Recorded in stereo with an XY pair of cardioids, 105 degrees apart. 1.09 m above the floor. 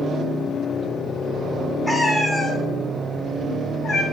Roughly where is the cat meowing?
Ahead.